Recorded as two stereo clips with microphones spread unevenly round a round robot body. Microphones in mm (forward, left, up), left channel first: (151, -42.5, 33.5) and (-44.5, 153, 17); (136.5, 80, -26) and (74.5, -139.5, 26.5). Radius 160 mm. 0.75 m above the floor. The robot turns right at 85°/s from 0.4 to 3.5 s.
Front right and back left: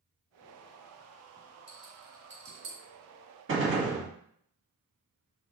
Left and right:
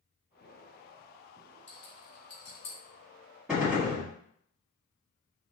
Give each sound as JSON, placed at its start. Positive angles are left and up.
{"t": 1.7, "sound": "a rattle", "azimuth_deg": 35, "distance_m": 2.5}
{"t": 3.5, "sound": "a gunshot", "azimuth_deg": 155, "distance_m": 1.2}